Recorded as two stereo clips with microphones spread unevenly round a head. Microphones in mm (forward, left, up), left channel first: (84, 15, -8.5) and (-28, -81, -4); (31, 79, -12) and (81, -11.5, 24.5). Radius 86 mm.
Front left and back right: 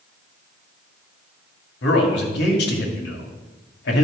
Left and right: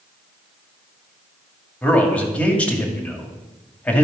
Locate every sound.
1.8 s a man speaking: 40° left, 2 m